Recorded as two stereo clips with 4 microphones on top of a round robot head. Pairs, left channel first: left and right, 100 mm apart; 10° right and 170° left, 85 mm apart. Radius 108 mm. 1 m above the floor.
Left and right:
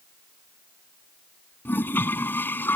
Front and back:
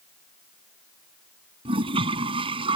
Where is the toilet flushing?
160° left.